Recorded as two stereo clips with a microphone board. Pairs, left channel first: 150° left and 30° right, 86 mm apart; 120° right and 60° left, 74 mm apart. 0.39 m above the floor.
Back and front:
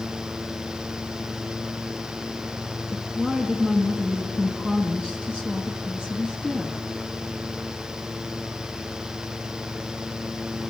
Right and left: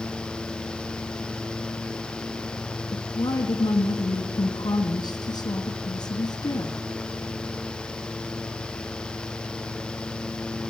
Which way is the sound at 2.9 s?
110° right.